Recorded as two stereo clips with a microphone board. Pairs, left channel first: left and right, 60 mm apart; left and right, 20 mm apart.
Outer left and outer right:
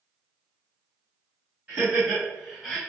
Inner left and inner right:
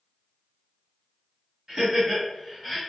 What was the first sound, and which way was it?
Laughter, 25° right (ahead or behind).